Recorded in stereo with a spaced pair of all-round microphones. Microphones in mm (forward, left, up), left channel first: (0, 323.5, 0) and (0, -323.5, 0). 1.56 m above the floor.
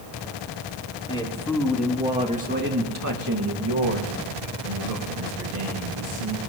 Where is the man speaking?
10° left (ahead or behind), 3 m; by 6.4 s 90° right, 3.5 m.